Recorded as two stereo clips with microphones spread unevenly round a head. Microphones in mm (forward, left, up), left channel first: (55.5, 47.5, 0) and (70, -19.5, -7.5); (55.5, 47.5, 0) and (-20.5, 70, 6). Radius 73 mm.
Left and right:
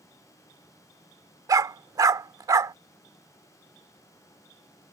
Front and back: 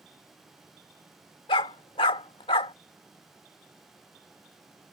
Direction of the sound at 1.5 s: 45° right.